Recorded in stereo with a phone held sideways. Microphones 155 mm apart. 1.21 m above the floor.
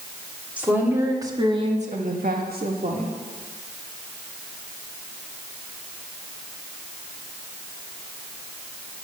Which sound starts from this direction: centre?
A woman speaking, at 0.6 s.